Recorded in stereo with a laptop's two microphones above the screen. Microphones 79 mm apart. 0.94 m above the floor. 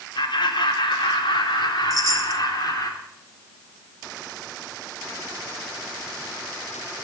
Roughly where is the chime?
Right.